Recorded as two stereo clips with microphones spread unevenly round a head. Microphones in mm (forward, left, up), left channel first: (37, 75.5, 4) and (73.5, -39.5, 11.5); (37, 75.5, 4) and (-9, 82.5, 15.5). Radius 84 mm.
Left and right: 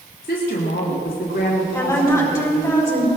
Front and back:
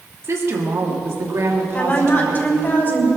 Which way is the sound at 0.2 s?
150° left.